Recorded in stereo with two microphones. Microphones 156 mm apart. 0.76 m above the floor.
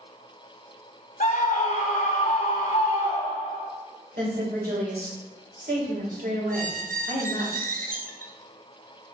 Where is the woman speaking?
75° right (ahead or behind), 2.5 m.